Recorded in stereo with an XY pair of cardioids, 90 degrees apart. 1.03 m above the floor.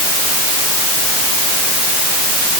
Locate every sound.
Only background noise.